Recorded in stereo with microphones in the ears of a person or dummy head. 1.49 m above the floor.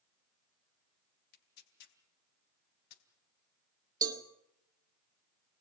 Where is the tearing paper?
60° left (ahead or behind), 3.5 m.